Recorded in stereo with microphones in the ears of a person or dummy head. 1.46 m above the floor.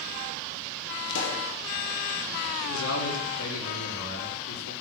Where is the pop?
65° left (ahead or behind), 3 m.